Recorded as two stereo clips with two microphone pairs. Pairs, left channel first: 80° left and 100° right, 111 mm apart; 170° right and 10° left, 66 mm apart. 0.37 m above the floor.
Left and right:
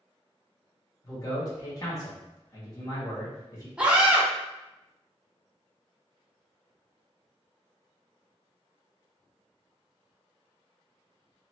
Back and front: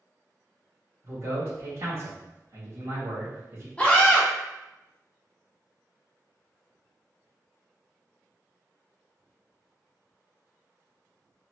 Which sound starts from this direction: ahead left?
A man speaking, at 1.0 s.